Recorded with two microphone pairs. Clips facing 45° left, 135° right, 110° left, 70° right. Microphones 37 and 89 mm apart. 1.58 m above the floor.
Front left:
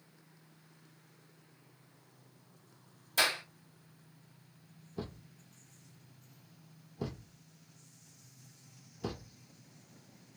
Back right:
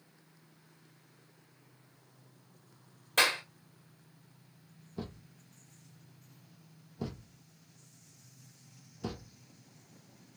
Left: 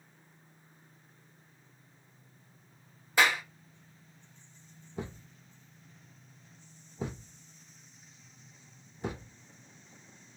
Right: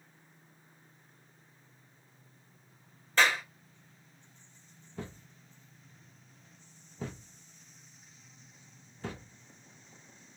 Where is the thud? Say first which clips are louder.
Even, left 3 dB; 125° left, 0.8 m.